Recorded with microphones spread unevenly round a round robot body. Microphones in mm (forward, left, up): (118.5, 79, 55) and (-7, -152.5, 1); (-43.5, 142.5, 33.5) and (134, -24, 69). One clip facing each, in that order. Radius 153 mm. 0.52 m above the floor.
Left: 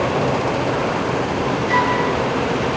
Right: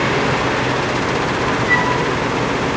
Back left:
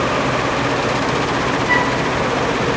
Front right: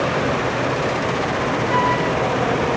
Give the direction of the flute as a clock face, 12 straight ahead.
5 o'clock.